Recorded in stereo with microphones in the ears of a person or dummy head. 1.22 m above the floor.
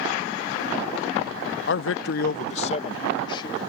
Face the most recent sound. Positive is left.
turn(degrees=25)  # may be behind; listen again after turning